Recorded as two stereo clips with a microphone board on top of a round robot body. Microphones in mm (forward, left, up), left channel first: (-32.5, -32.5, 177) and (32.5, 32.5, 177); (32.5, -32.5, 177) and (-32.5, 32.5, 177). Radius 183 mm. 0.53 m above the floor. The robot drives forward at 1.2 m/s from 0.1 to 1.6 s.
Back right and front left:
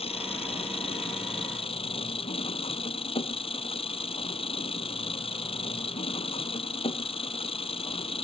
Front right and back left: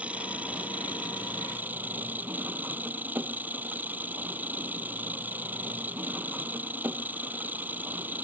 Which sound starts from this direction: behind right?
An engine running, at 0.0 s.